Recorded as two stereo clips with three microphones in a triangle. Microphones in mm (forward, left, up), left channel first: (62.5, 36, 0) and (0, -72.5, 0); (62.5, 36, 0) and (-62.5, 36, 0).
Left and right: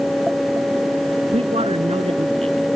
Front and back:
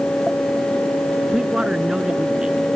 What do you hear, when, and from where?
1.3 s a man speaking: 100° right